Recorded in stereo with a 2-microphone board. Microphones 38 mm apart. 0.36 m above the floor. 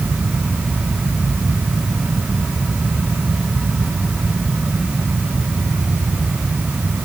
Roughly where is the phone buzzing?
No phone buzzing in this recording.